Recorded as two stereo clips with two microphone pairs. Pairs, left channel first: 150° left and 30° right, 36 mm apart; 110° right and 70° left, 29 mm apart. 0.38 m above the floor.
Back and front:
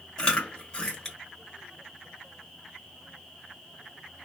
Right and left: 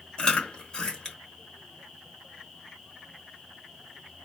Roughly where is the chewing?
Behind right.